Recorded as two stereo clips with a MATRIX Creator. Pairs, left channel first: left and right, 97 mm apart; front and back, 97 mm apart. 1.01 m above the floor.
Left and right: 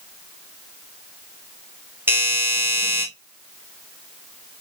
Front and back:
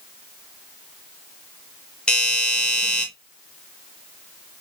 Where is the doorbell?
65° right, 0.9 m.